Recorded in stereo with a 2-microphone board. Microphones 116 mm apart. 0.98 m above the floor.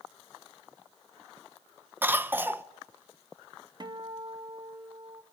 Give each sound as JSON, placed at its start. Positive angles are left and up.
{"t": 2.0, "sound": "a cough", "side_deg": -20, "distance_m": 0.8}
{"t": 3.8, "sound": "a guitar", "side_deg": -40, "distance_m": 0.8}